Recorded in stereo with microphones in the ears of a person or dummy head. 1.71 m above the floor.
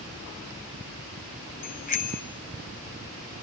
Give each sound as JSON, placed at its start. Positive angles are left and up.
{"t": 1.6, "sound": "a bicycle bell", "side_deg": 40, "distance_m": 3.0}